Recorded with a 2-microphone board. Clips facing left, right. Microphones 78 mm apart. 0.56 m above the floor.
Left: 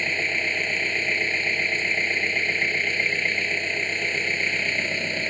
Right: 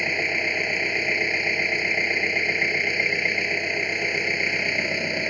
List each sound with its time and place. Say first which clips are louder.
0.0 s an engine running: right 1 dB; 10° right (ahead or behind)